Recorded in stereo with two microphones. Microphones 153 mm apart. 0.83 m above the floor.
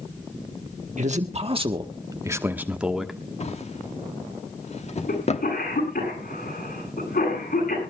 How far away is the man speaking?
About 1.3 m.